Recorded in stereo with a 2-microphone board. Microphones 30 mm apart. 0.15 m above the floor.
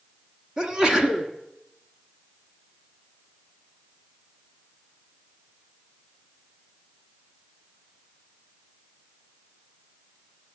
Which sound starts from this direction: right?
A sneeze, at 0.6 s.